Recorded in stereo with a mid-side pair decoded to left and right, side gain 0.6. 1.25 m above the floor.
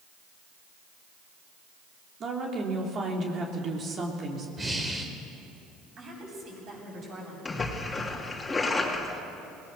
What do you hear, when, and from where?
2.2 s a woman speaking: 40° right, 3.5 m
4.6 s breathing: 20° right, 3.5 m
6.0 s a woman speaking: 50° right, 9 m
7.5 s a splash: 20° left, 3 m